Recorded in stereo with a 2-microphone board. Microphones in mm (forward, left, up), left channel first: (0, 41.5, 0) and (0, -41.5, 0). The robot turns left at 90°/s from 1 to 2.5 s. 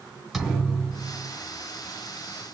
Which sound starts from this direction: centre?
A thud, at 0.3 s.